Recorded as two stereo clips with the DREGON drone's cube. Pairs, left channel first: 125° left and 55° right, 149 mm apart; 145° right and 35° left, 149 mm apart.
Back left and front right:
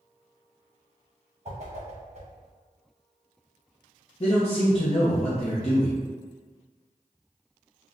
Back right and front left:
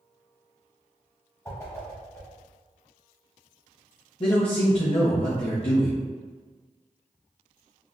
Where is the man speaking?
165° left, 0.7 m.